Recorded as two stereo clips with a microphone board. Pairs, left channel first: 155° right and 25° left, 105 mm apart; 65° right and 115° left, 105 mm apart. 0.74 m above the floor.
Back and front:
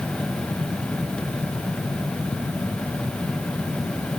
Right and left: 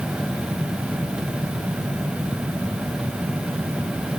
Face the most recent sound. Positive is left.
No sound to turn to.